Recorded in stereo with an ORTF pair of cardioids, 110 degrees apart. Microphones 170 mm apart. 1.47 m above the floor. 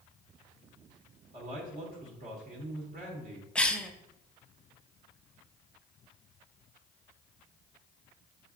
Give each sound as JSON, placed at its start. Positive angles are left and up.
{"t": 1.3, "sound": "a man speaking", "azimuth_deg": -65, "distance_m": 1.5}
{"t": 3.5, "sound": "a cough", "azimuth_deg": 5, "distance_m": 0.6}